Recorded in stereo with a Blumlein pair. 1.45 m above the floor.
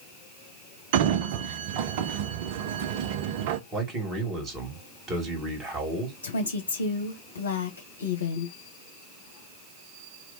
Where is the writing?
I don't hear writing.